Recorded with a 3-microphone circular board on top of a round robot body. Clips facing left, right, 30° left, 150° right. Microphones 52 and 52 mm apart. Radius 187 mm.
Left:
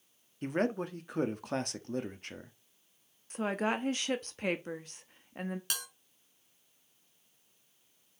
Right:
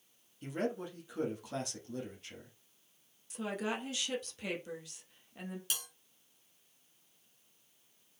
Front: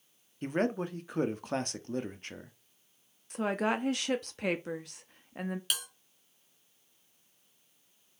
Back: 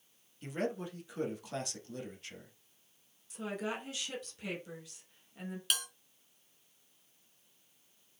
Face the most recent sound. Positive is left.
turn(degrees=115)